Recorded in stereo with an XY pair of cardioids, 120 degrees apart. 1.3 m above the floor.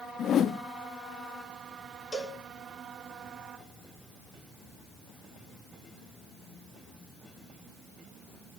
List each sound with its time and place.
0.2 s a whoosh: 50° left, 0.7 m
2.1 s a cowbell: 25° left, 4 m